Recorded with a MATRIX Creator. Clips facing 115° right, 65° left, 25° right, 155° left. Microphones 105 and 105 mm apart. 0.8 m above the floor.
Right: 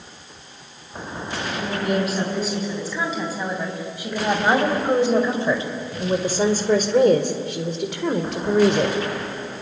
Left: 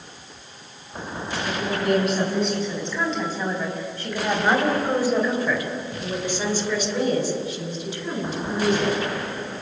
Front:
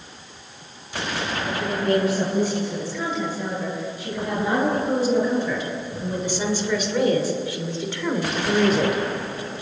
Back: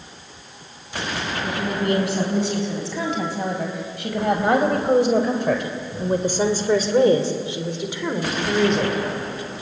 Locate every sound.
1.4 s a woman speaking: 155° left, 7.5 m; by 9.0 s 105° right, 3.5 m